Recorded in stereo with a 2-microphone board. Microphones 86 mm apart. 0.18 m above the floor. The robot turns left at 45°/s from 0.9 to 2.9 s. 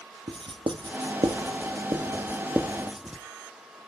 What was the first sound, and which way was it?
Writing, 85° right.